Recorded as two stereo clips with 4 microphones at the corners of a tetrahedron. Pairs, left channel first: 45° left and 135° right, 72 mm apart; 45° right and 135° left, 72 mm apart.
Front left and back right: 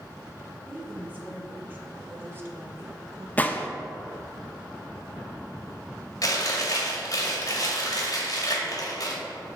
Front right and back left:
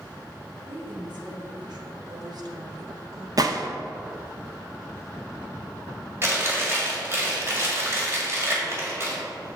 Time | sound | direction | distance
0.7 | a woman speaking | 155° left | 1.9 m
3.4 | a gunshot | 110° left | 0.6 m
6.2 | chewing | 80° left | 2 m